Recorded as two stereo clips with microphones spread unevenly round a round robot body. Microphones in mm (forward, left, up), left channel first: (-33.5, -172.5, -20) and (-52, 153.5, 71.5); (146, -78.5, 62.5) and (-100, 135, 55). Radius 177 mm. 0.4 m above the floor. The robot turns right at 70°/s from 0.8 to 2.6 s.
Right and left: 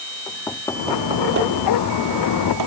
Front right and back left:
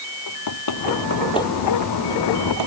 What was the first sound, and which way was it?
Knocking, 5° right.